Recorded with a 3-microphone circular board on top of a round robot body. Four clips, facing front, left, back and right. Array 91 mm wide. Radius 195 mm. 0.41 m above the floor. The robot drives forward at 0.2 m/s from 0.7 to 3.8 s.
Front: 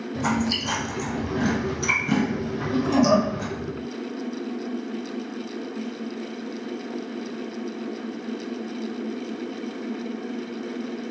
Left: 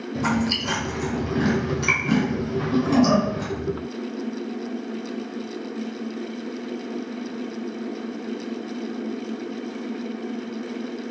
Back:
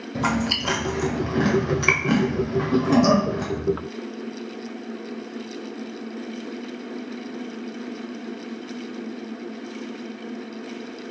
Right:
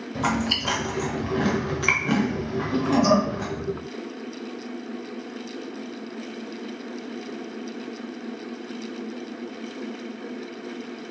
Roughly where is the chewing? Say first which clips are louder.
Left 1 dB, back 1 dB; behind right.